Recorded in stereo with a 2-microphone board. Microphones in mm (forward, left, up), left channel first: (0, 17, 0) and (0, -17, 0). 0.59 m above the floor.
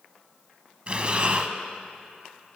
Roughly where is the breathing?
Right.